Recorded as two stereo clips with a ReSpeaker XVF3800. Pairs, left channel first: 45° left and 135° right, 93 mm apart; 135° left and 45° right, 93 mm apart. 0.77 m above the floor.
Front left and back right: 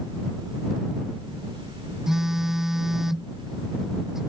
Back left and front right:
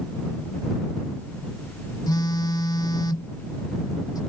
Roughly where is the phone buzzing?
Behind left.